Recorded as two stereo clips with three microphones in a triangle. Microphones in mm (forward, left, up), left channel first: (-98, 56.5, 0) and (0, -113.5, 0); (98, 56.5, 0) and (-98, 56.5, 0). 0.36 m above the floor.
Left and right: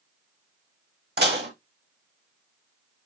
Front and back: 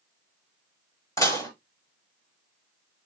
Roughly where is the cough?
I don't hear a cough.